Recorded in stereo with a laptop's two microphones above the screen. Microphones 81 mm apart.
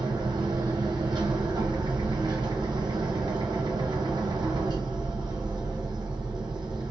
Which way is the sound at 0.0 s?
60° right (ahead or behind).